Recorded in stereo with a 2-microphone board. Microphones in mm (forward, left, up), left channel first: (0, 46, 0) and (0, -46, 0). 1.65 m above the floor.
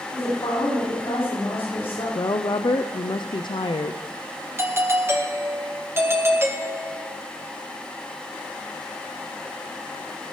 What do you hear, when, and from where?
0.1 s a woman speaking: 85° left, 5 m
2.1 s a woman speaking: 60° left (ahead or behind), 0.5 m
4.6 s a doorbell: 25° right (ahead or behind), 1.3 m